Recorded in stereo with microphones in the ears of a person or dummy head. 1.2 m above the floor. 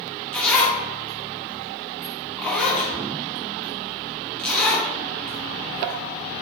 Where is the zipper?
5° left (ahead or behind), 0.7 m.